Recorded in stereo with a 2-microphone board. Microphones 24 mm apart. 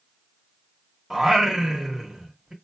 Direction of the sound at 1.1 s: 20° right (ahead or behind).